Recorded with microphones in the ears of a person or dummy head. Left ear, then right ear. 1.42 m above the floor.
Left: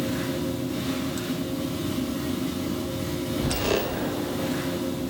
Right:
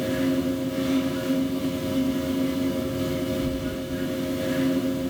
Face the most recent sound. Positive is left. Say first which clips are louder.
# right 3 dB
turn(degrees=-25)  # may be behind; listen again after turning